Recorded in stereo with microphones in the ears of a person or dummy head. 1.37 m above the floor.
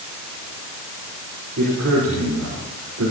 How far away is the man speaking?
About 4.5 m.